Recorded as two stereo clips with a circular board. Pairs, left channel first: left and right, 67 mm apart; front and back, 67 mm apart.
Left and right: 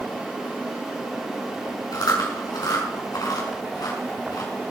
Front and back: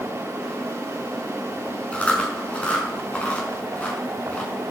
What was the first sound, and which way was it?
Chewing, 70° left.